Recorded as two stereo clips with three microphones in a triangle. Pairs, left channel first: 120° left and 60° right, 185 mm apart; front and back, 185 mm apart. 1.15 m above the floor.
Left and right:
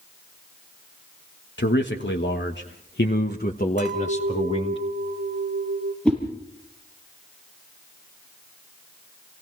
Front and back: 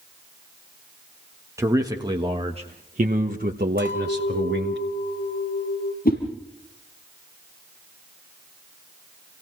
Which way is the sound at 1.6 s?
105° left.